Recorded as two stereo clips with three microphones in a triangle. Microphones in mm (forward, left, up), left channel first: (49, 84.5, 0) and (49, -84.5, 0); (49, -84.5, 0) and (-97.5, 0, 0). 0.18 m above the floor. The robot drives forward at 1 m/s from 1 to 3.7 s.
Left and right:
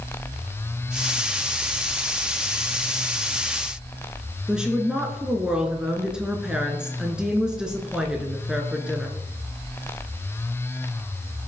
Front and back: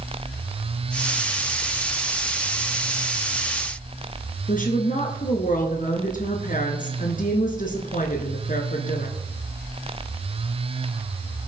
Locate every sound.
4.5 s a woman speaking: 5° right, 1.8 m